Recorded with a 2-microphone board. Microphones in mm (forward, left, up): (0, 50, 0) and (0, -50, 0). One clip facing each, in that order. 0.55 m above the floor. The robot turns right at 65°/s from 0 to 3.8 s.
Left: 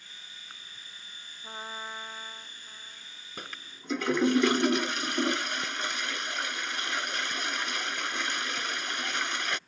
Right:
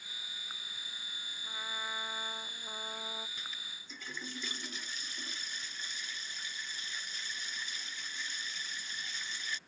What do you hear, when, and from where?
1.4 s a trumpet: 140° left; by 3.3 s 100° right
3.4 s a toilet flushing: 65° left (ahead or behind); by 9.6 s 85° left